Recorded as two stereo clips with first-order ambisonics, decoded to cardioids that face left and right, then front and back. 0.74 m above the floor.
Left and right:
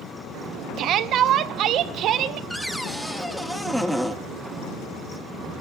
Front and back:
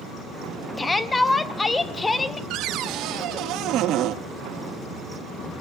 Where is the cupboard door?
175° right, 0.6 m.